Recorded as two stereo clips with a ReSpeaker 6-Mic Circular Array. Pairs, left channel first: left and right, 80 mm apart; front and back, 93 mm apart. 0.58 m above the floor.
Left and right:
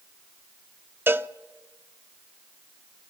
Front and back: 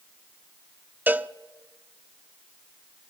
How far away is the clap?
I don't hear a clap.